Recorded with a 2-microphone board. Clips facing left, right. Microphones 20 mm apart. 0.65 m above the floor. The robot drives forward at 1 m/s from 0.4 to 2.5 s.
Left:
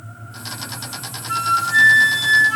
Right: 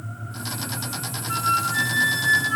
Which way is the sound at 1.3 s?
25° left (ahead or behind).